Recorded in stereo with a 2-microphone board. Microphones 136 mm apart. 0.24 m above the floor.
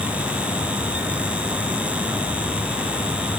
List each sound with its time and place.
Only background noise.